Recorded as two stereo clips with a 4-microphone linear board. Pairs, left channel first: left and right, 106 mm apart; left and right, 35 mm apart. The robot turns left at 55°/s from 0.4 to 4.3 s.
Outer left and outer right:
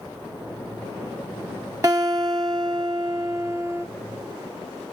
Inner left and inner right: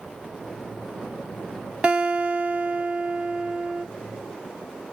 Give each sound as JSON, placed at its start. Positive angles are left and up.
{"t": 1.8, "sound": "a guitar", "azimuth_deg": -45, "distance_m": 1.0}